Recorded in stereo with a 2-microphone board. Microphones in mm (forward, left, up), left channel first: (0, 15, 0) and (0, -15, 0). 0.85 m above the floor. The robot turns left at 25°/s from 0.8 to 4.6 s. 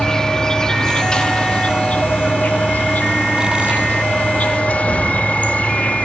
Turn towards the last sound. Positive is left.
turn(degrees=65)